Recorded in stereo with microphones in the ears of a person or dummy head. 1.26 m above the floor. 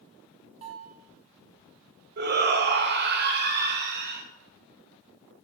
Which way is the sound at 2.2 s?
55° right (ahead or behind).